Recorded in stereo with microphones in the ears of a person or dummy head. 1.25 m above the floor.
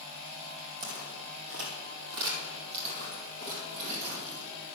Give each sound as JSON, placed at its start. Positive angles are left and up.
{"t": 0.8, "sound": "footsteps", "side_deg": -40, "distance_m": 2.5}